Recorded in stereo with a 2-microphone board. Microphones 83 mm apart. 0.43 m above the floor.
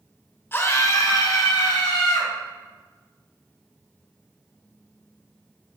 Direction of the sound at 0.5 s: 30° left (ahead or behind).